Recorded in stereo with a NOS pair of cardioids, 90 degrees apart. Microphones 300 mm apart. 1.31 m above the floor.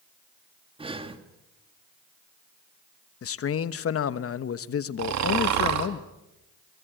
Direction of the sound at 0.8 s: 20° right.